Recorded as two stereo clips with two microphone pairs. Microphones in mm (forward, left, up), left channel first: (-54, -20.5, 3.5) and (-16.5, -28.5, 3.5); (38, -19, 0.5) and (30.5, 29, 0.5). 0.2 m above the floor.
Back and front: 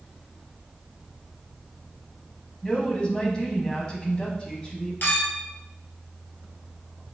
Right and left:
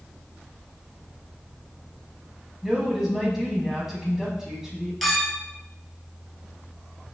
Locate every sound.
2.6 s a woman speaking: 170° left, 1.0 m
5.0 s a clink: 165° right, 2 m